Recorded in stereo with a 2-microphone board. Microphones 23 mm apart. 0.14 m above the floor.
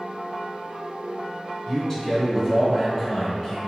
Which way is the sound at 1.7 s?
25° left (ahead or behind).